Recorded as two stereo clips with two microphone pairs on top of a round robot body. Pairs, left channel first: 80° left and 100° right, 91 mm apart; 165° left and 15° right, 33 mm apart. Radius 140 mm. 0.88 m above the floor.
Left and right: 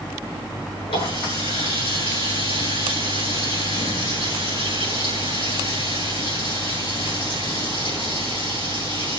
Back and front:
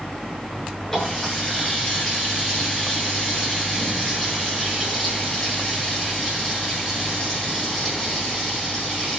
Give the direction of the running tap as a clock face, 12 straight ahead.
9 o'clock.